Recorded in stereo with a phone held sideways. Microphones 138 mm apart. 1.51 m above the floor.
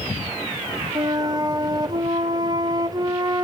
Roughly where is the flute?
Right.